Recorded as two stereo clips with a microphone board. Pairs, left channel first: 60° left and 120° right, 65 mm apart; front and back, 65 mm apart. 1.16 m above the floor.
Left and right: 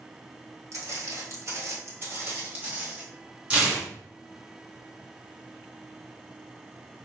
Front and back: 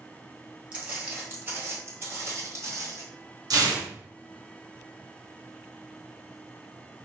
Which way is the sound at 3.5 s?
170° left.